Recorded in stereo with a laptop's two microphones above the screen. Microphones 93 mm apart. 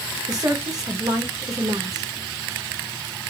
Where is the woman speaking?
40° right (ahead or behind), 1.2 m.